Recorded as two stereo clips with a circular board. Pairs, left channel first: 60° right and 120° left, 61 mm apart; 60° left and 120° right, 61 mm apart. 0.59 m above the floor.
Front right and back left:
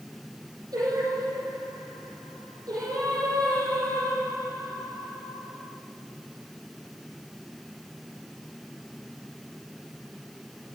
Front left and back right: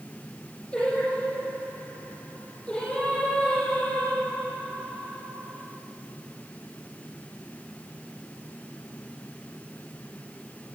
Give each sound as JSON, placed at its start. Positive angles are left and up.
{"t": 0.7, "sound": "singing", "azimuth_deg": 140, "distance_m": 4.0}